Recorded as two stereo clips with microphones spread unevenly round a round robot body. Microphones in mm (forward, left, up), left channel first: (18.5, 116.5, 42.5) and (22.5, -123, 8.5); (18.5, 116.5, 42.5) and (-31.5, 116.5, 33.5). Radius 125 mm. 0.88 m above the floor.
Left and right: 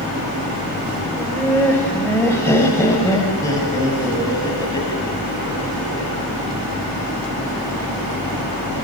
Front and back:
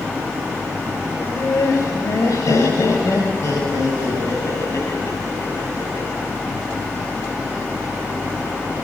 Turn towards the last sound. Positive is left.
turn(degrees=20)